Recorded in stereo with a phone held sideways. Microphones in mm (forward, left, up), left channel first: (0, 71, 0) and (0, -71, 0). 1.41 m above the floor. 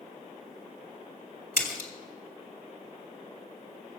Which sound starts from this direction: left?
A splash, at 1.6 s.